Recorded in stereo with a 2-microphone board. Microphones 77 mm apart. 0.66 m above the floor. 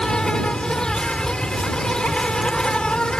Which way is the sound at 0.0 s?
10° left (ahead or behind).